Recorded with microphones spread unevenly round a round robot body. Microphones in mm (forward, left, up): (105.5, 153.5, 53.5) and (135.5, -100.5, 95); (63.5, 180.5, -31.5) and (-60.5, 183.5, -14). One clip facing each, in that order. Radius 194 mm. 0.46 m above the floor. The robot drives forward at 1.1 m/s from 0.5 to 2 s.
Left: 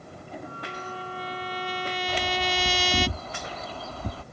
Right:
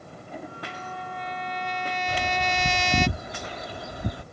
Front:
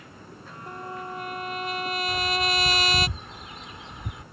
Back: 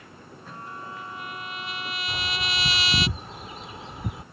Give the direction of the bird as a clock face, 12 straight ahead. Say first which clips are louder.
Even, front 6 dB; 5 o'clock.